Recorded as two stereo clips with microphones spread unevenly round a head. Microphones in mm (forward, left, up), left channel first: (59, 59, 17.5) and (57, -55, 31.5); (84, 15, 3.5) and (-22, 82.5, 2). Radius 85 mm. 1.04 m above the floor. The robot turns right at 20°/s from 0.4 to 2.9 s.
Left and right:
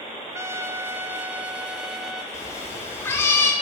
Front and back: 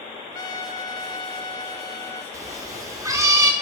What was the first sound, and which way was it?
A trumpet, 30° right.